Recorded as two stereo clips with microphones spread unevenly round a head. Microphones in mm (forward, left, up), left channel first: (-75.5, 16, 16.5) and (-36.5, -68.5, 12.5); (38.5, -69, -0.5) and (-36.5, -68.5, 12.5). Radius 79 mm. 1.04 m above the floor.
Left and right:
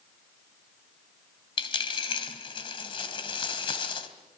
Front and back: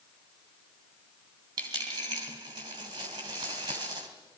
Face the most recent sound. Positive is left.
turn(degrees=140)